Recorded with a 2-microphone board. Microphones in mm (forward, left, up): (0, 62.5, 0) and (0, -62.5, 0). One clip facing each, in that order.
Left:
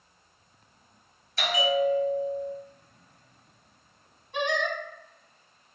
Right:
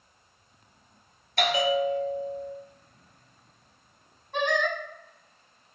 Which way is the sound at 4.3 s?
60° right (ahead or behind).